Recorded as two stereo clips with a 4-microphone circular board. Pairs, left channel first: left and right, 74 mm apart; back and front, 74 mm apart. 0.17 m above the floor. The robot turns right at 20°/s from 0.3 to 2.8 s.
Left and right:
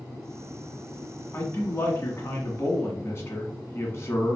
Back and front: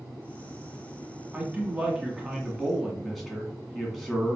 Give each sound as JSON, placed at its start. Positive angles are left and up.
{"t": 1.3, "sound": "a man speaking", "azimuth_deg": 60, "distance_m": 1.2}